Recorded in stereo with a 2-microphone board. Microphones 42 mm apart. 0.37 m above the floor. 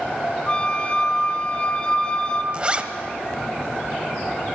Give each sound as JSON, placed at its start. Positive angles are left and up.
{"t": 0.5, "sound": "a flute", "side_deg": 25, "distance_m": 1.3}
{"t": 2.5, "sound": "a zipper", "side_deg": -25, "distance_m": 0.9}